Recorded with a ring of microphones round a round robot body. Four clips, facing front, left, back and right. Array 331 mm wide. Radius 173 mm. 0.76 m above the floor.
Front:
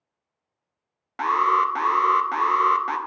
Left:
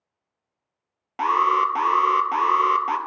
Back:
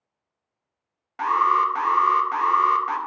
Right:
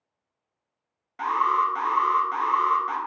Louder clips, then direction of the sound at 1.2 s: Left 3 dB, even; 55° left.